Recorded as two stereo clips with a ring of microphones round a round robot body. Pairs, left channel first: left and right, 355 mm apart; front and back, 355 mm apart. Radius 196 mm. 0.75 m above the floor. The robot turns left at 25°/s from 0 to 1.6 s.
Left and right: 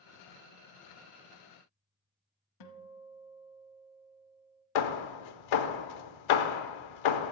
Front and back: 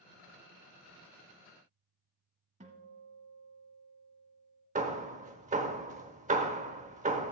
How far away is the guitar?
About 0.8 m.